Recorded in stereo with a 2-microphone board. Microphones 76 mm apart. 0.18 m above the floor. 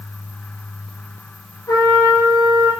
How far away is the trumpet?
About 4 m.